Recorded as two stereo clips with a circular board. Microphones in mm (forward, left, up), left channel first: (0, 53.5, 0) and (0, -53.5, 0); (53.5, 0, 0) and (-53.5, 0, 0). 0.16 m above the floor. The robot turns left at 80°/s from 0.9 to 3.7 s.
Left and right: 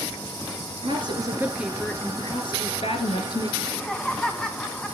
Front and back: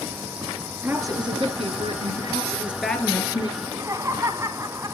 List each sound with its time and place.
0.8 s a woman speaking: 115° right, 2.5 m; by 3.5 s 40° left, 2.5 m
3.6 s laughter: 170° left, 1.1 m; by 5.0 s 160° left, 1.1 m